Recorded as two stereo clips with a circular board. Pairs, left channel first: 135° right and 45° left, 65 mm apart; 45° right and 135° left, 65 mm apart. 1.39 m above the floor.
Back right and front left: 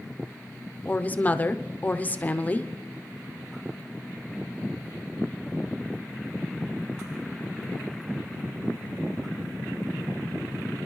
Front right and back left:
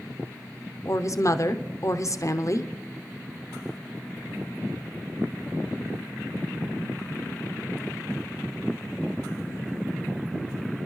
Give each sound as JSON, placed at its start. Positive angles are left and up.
{"t": 0.8, "sound": "a woman speaking", "azimuth_deg": -75, "distance_m": 0.6}